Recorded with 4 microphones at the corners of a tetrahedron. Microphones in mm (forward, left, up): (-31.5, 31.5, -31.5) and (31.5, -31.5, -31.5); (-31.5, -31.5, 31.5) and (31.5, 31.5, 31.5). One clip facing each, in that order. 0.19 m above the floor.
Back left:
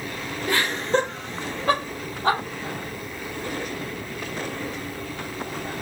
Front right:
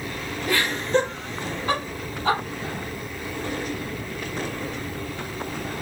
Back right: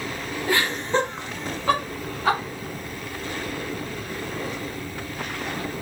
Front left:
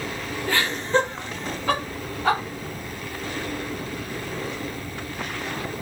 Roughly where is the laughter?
Behind.